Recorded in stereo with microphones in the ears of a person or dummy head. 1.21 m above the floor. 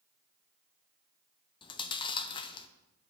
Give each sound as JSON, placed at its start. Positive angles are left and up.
{"t": 1.6, "sound": "chewing", "side_deg": 25, "distance_m": 0.7}